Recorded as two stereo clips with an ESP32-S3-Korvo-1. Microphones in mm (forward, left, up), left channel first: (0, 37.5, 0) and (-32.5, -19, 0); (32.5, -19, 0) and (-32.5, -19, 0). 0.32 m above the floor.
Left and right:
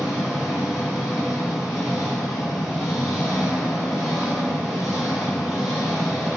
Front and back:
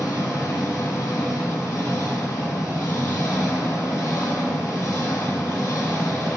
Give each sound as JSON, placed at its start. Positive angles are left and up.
{"t": 0.0, "sound": "an engine running", "azimuth_deg": -35, "distance_m": 1.5}